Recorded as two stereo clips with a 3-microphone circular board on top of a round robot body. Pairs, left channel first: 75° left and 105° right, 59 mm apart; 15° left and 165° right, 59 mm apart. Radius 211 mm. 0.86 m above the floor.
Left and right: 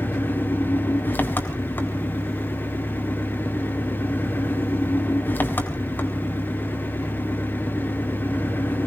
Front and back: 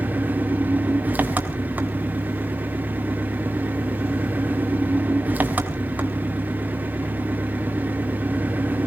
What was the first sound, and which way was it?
An engine running, 135° left.